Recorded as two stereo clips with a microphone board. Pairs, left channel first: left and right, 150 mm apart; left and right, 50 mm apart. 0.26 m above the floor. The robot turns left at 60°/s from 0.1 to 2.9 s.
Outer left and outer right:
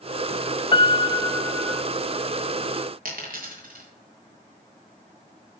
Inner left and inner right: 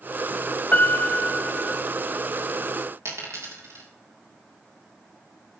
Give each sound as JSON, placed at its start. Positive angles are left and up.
{"t": 0.7, "sound": "a piano", "azimuth_deg": 70, "distance_m": 0.5}
{"t": 3.0, "sound": "a dropped coin", "side_deg": -70, "distance_m": 4.0}